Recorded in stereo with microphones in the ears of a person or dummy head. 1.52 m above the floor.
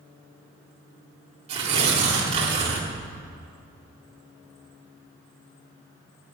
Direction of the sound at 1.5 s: 35° right (ahead or behind).